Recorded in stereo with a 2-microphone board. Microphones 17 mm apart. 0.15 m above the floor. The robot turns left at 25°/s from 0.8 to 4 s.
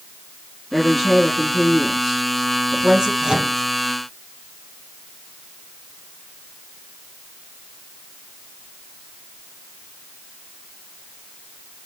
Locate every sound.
0.7 s a woman speaking: 10° right, 2.5 m; by 3.1 s 65° right, 2.5 m
3.2 s a microwave: 70° right (ahead or behind), 3 m